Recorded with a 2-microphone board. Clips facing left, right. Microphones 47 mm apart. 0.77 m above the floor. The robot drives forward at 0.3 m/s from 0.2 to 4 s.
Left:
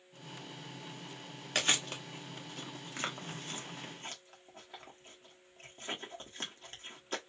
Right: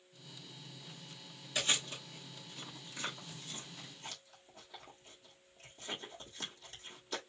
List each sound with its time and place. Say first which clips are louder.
1.6 s chewing: left 3 dB; 65° left (ahead or behind), 1.0 m; by 7.3 s 45° left (ahead or behind), 1.3 m